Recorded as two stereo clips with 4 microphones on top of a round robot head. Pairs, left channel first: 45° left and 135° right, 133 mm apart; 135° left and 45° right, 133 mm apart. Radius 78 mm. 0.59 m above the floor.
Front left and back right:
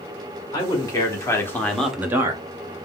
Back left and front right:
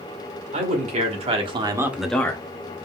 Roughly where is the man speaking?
Ahead.